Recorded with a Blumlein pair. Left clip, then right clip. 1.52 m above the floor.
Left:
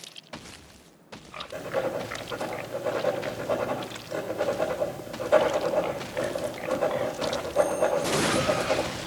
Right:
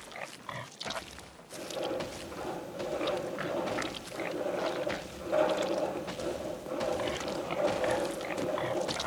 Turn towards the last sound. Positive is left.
turn(degrees=35)